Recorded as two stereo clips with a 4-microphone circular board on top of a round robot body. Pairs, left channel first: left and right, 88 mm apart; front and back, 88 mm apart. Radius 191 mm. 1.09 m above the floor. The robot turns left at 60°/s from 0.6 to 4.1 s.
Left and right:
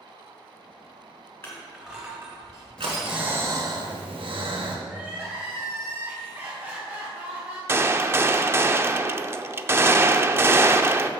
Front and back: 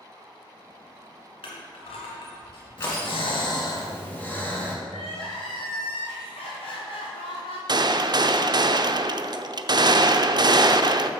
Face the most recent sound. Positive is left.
turn(degrees=-150)